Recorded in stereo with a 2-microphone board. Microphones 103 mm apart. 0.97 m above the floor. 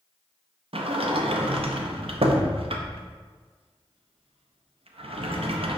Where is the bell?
No bell in this recording.